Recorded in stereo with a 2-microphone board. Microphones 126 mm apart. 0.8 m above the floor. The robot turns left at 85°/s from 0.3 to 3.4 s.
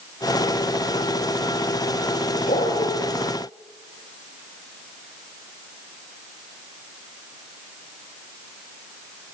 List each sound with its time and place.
2.5 s a dog barking: 105° left, 5.5 m; by 2.9 s 65° left, 5.5 m